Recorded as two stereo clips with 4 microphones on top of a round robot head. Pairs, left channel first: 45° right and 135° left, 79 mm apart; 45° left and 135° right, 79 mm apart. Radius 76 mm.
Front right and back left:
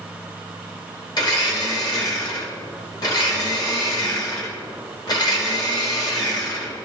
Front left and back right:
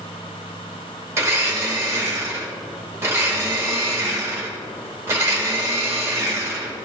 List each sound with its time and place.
1.2 s a blender: 80° right, 1.8 m